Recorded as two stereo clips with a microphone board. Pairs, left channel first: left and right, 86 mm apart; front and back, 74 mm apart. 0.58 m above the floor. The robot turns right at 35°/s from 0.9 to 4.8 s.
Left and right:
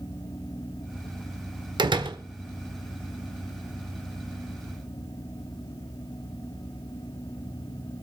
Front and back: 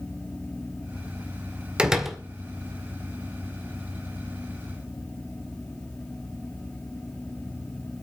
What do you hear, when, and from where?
1.8 s a door slam: 105° right, 1.5 m; by 2.2 s 90° right, 1.5 m